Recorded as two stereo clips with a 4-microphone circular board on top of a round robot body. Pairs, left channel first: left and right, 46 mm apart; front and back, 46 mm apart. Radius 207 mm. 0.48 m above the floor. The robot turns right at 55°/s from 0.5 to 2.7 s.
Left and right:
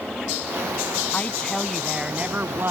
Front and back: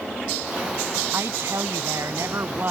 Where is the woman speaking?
145° left; by 2.7 s 130° right.